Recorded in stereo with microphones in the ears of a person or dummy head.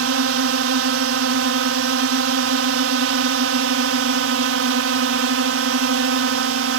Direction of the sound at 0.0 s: 65° right (ahead or behind).